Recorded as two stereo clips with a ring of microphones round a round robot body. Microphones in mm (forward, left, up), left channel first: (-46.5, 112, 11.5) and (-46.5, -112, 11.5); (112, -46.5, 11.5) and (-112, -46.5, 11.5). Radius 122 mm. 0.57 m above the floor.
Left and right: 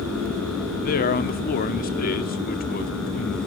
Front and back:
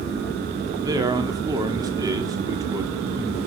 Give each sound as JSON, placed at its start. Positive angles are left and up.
{"t": 0.8, "sound": "a man speaking", "azimuth_deg": 115, "distance_m": 1.5}